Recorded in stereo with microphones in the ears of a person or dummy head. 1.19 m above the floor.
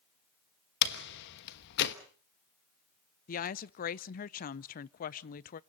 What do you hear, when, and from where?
0.8 s a door slam: 60° left (ahead or behind), 1.2 m
3.3 s a woman speaking: 45° left (ahead or behind), 0.6 m